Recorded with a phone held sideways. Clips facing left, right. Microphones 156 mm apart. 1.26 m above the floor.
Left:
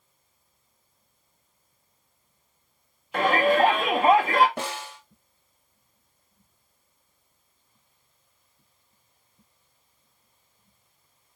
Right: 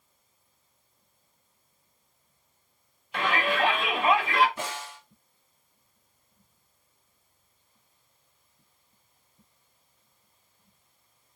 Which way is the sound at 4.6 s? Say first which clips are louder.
Left 3 dB; 70° left (ahead or behind).